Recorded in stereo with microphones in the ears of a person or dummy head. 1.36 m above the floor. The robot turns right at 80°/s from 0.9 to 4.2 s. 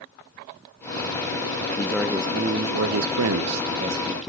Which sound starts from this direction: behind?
A man speaking, at 1.8 s.